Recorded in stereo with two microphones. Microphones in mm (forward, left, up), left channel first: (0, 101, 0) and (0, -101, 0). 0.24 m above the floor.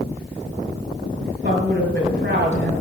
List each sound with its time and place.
1.4 s a woman speaking: 60° right (ahead or behind), 5 m